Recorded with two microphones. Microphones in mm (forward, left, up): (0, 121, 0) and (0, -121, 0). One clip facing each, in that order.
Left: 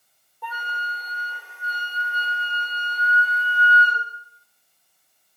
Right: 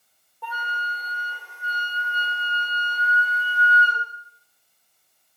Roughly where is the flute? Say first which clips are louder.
Right 1 dB; centre.